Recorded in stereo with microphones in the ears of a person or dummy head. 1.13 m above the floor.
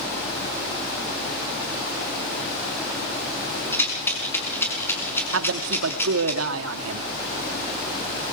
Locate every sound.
3.7 s a rattle: 15° left (ahead or behind), 5.5 m
5.3 s a man speaking: 85° right, 2.0 m